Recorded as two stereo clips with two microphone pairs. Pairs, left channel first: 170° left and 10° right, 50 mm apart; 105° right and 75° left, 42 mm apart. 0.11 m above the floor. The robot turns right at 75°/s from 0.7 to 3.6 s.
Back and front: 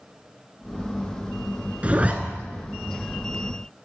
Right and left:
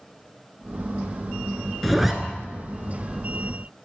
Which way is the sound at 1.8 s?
15° right.